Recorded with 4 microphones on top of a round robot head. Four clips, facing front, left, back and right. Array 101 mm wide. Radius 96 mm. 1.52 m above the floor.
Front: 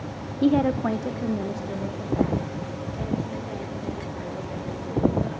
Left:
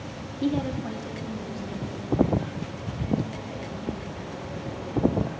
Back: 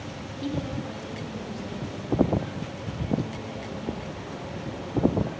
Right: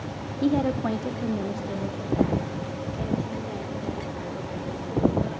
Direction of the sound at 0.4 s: 10° right.